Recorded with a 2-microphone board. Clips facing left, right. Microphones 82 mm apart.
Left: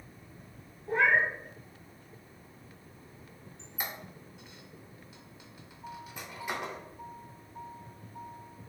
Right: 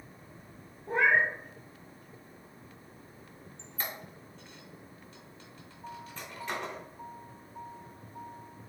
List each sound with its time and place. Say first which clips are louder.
0.9 s a cat meowing: even; 35° right (ahead or behind), 1.5 m
3.6 s a squeak: even; 10° left (ahead or behind), 0.7 m